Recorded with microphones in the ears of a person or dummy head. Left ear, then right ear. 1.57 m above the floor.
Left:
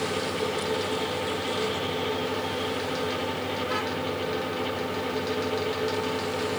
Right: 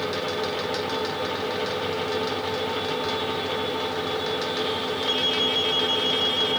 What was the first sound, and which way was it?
Only background noise.